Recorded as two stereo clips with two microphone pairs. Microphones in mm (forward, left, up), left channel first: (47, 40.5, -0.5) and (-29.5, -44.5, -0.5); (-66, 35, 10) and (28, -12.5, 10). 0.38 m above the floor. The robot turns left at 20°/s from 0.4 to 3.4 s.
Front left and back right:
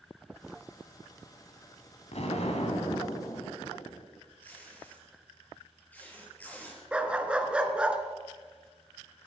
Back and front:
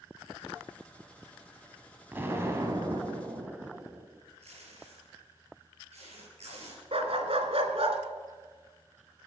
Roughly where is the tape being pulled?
Ahead right.